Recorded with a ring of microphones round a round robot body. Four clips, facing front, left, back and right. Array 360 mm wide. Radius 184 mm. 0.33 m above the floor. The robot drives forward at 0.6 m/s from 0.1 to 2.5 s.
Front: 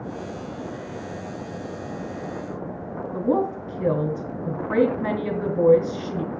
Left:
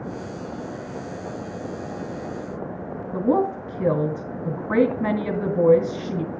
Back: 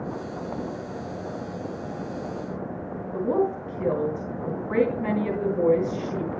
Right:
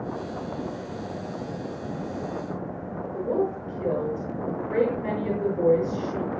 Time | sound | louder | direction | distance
3.1 | a woman speaking | left 5 dB, front 1 dB | 70° left | 3 m